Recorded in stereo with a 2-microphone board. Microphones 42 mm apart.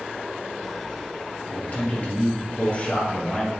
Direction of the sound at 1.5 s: 40° left (ahead or behind).